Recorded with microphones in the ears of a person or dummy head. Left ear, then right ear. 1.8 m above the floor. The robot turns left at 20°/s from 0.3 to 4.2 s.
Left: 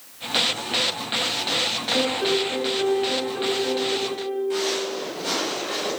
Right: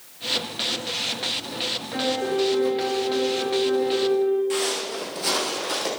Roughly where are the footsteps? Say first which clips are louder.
Left 1 dB; right.